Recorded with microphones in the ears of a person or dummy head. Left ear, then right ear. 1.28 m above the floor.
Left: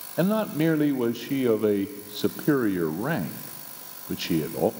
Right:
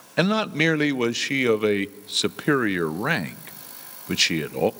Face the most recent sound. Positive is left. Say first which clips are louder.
# right 3 dB
turn(degrees=-60)  # may be behind; listen again after turning